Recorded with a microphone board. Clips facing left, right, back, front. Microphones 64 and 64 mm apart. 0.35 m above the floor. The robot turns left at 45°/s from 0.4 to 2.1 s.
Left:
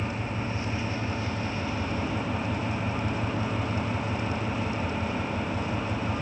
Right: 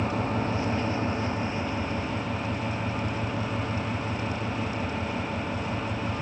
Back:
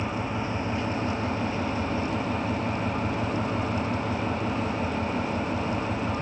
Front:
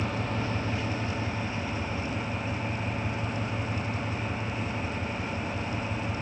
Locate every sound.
0.0 s an engine running: 110° right, 4 m; by 6.2 s 175° left, 4 m